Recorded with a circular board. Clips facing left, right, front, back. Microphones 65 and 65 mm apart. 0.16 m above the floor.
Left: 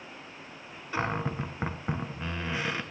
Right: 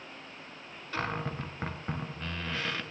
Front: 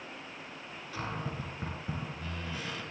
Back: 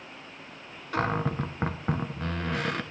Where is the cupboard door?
165° left, 0.7 m.